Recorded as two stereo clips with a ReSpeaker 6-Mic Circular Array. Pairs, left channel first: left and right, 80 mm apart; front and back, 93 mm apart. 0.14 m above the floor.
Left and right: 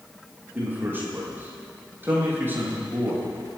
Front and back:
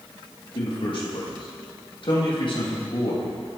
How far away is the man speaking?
About 6 m.